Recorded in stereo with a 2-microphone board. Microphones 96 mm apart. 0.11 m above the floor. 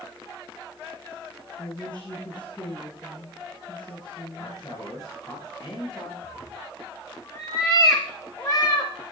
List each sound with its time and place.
1.6 s a woman speaking: 55° left (ahead or behind), 8.5 m
4.4 s a man speaking: 40° left (ahead or behind), 8.5 m
6.2 s a cat meowing: 35° left (ahead or behind), 4.5 m